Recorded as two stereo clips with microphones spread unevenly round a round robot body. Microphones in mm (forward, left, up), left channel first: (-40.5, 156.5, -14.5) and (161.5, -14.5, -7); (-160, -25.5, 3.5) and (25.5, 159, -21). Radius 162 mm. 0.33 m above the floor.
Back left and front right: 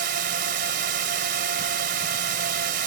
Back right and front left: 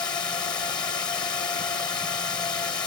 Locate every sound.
0.0 s a drone: 60° right